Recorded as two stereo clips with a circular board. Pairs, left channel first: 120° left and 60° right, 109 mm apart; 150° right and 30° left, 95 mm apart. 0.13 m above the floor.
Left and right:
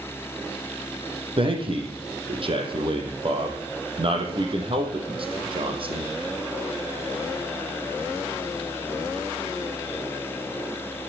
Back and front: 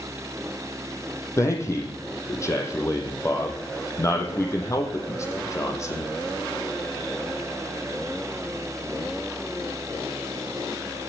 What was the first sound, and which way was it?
A man speaking, 90° right.